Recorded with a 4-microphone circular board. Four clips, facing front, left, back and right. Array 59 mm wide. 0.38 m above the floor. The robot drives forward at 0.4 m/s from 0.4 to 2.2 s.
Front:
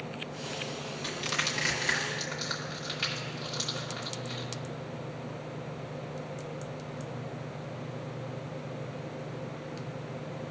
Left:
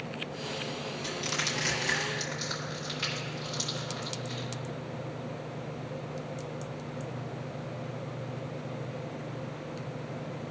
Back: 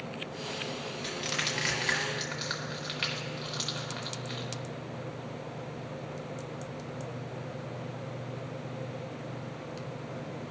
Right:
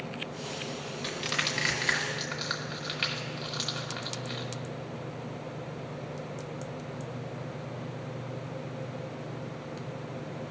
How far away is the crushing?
About 1.2 m.